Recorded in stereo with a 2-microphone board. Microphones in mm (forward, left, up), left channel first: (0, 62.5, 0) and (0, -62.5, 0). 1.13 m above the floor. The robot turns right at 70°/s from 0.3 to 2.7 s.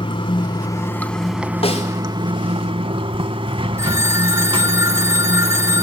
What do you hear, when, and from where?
0.0 s running water: 110° left, 1.3 m; by 5.8 s 80° right, 1.3 m
1.6 s a snare drum: 50° left (ahead or behind), 4 m; by 1.9 s 70° left (ahead or behind), 4 m
3.8 s a phone ringing: 25° right (ahead or behind), 1.6 m